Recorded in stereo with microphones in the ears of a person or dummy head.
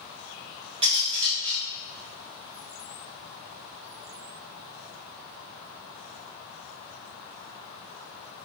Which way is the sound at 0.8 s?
25° right (ahead or behind).